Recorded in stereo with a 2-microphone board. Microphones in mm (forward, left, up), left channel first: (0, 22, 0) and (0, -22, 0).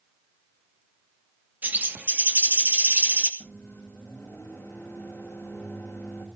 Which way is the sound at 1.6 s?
40° right (ahead or behind).